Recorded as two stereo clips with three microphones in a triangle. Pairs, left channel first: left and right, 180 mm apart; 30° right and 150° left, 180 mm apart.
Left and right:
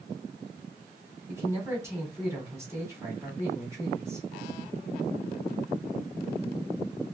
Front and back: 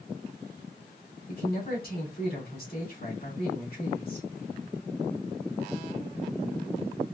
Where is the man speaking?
15° right, 2.5 m.